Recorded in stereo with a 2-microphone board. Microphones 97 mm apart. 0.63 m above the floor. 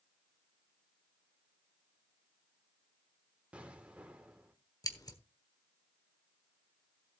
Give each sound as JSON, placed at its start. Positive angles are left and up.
{"t": 3.5, "sound": "an explosion", "side_deg": -15, "distance_m": 1.6}
{"t": 4.8, "sound": "scissors", "side_deg": 40, "distance_m": 1.2}